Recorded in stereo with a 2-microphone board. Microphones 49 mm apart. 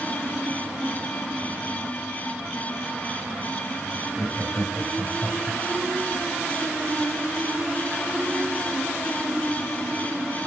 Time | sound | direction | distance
4.2 | laughter | 10° right (ahead or behind) | 1.0 m